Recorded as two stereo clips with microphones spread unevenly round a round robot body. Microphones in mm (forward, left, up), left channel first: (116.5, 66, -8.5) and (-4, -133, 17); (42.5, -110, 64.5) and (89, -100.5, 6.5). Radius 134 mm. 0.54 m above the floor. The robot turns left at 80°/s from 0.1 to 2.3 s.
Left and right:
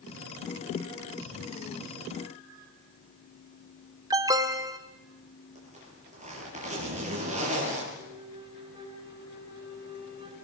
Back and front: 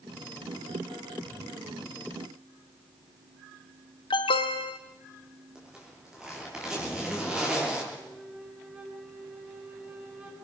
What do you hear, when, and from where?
4.1 s an alarm: 160° left, 0.8 m
5.5 s a zipper: 60° right, 8 m
7.9 s a flute: 55° right, 4 m